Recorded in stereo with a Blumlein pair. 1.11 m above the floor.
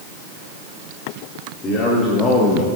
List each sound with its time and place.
1.6 s a man speaking: 20° left, 2.5 m; by 2.7 s 5° left, 1.1 m